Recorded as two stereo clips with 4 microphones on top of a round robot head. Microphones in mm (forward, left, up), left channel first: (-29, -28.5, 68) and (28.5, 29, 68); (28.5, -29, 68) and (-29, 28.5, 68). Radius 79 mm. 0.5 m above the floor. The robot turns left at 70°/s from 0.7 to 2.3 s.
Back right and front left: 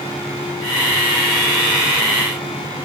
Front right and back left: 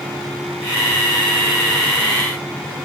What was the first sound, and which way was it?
Only background noise.